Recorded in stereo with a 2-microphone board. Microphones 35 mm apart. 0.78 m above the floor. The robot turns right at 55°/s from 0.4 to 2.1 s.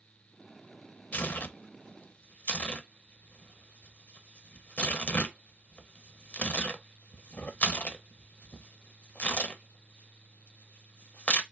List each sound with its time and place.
1.1 s tearing paper: 55° left (ahead or behind), 0.7 m; by 11.4 s 45° left (ahead or behind), 0.7 m